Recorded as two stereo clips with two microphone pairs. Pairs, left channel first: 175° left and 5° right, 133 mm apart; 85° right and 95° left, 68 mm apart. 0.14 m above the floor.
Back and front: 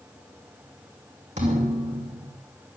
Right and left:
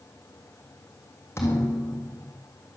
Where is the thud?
35° right, 3.5 m.